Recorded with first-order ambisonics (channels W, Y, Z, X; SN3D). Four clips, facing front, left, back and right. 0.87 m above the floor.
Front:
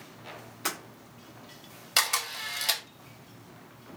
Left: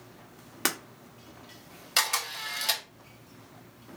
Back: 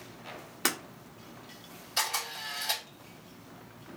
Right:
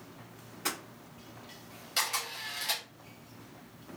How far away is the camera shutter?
About 1.0 m.